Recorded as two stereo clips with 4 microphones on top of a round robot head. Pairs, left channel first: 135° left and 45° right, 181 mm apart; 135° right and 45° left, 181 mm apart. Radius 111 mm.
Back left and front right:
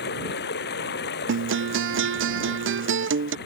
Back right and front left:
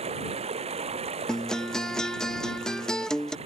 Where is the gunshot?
I don't hear a gunshot.